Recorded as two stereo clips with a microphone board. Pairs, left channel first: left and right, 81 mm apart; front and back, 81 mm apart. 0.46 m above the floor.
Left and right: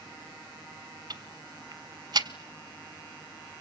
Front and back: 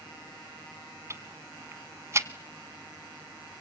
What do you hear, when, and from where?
1.1 s ticking: 125° right, 0.9 m